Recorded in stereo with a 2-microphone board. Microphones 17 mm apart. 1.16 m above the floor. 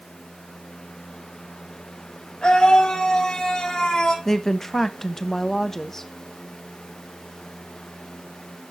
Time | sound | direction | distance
2.4 | a scream | 60° left (ahead or behind) | 4.5 m
4.2 | a woman speaking | 20° left (ahead or behind) | 1.1 m